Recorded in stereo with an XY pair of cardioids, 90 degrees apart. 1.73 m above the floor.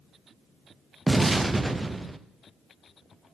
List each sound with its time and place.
1.1 s an explosion: 15° right, 0.6 m